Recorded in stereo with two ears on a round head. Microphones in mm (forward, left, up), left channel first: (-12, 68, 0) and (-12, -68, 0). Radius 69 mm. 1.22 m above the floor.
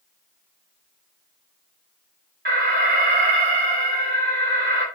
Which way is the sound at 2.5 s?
55° right (ahead or behind).